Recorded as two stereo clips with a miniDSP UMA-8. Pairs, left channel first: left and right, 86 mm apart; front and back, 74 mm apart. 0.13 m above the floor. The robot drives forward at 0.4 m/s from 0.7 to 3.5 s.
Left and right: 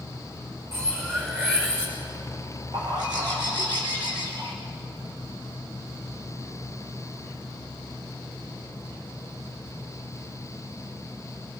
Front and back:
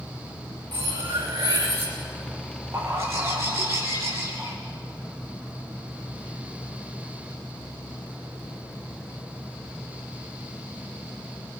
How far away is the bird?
About 5 m.